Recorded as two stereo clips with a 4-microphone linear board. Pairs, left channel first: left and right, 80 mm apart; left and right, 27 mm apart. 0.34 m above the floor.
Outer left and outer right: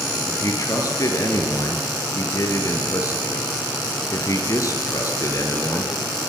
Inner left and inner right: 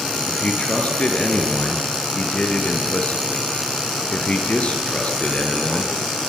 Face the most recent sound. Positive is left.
turn(degrees=45)  # may be behind; listen again after turning